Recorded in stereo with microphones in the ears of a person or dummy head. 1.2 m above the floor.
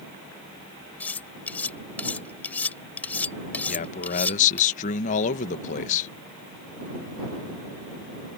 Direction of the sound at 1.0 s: 10° left (ahead or behind).